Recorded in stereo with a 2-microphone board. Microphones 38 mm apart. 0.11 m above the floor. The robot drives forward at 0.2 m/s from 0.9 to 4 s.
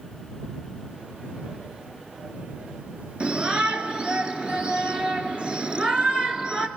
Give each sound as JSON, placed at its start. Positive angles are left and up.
{"t": 3.2, "sound": "a shout", "side_deg": -30, "distance_m": 1.2}